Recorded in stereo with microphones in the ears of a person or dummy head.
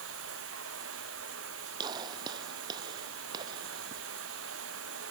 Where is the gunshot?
25° right (ahead or behind).